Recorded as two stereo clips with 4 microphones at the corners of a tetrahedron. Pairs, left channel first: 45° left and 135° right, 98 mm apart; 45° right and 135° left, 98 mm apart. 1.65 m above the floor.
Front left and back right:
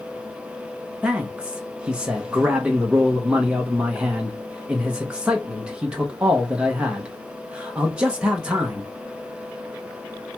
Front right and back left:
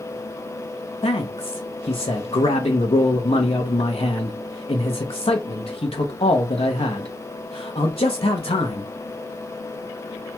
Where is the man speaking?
55° right, 0.9 m.